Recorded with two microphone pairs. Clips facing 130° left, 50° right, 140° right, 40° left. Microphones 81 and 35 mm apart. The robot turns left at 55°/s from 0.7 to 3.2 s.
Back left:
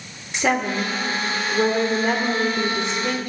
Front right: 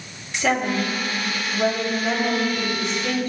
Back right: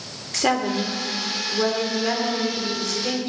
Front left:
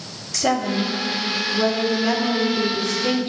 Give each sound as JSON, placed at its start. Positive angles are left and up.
{"t": 0.3, "sound": "a woman speaking", "azimuth_deg": -165, "distance_m": 1.8}